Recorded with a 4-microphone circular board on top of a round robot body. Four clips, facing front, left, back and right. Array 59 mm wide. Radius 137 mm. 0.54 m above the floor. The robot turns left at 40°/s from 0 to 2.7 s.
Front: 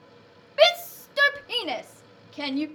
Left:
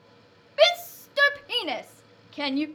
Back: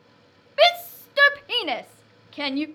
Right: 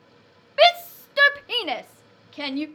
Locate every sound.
0.6 s a shout: 110° right, 0.6 m; by 2.7 s 170° left, 0.6 m